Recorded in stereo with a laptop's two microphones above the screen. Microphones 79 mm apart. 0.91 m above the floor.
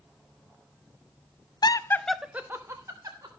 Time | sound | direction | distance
1.6 | laughter | 55° left (ahead or behind) | 0.6 m